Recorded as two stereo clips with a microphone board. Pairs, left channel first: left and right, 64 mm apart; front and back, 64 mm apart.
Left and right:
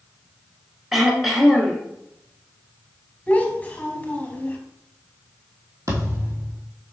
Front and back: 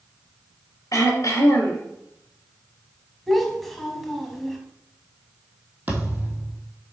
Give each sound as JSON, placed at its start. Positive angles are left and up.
{"t": 0.9, "sound": "throat clearing", "azimuth_deg": -5, "distance_m": 1.4}
{"t": 3.3, "sound": "a child speaking", "azimuth_deg": 85, "distance_m": 0.9}
{"t": 5.9, "sound": "a thud", "azimuth_deg": -120, "distance_m": 1.7}